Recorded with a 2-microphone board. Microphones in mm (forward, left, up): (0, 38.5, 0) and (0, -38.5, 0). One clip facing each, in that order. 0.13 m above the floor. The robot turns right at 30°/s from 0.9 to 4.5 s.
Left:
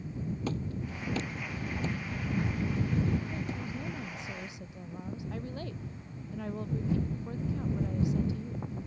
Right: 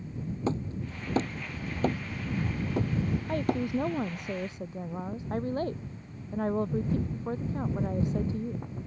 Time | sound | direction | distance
0.5 | hammering | 30° right (ahead or behind) | ?
3.3 | a woman speaking | 80° right | ?